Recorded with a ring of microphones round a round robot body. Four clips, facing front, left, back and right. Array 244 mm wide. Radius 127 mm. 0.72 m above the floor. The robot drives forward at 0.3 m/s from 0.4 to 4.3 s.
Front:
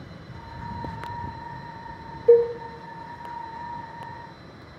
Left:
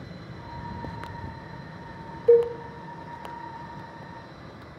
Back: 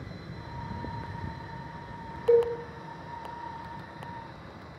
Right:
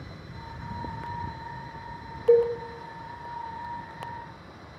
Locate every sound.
2.3 s a cowbell: 35° left, 0.6 m; by 2.5 s 40° left, 0.6 m